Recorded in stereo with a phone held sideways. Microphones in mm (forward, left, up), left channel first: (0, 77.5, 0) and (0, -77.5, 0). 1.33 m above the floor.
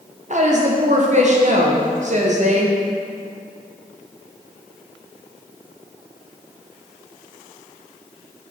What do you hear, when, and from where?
0.3 s a woman speaking: 50° right (ahead or behind), 0.7 m